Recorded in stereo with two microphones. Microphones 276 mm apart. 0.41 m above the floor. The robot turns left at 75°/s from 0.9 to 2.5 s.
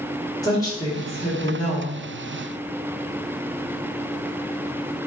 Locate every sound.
0.4 s a woman speaking: 15° left (ahead or behind), 1.5 m; by 2.1 s 20° left (ahead or behind), 1.5 m